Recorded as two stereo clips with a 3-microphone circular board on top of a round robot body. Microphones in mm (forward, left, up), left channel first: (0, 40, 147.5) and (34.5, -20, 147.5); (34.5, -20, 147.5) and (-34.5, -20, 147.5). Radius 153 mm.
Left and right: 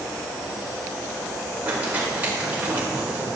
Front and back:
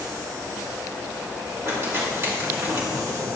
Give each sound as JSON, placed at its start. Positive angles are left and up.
{"t": 1.6, "sound": "crumpling", "azimuth_deg": -125, "distance_m": 4.0}